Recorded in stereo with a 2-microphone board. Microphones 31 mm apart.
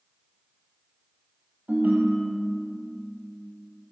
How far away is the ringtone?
About 1.9 m.